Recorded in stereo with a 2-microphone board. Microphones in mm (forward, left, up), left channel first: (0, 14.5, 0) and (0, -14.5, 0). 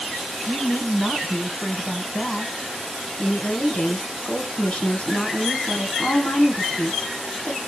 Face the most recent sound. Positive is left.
turn(degrees=50)  # may be behind; listen again after turning